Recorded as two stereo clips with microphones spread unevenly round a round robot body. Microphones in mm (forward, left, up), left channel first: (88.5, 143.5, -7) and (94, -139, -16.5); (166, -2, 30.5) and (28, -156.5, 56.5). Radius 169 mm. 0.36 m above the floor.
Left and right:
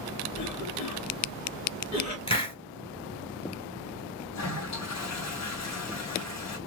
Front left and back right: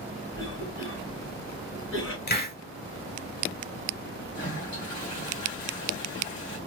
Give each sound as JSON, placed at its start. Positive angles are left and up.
{"t": 0.3, "sound": "a cough", "azimuth_deg": 70, "distance_m": 3.5}
{"t": 2.3, "sound": "a hiss", "azimuth_deg": 20, "distance_m": 2.0}
{"t": 4.3, "sound": "a toilet flushing", "azimuth_deg": 70, "distance_m": 3.0}